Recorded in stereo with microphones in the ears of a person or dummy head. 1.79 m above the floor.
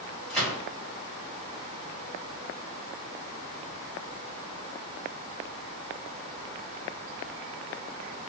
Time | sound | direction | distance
0.3 | a gunshot | 5° left (ahead or behind) | 1.7 m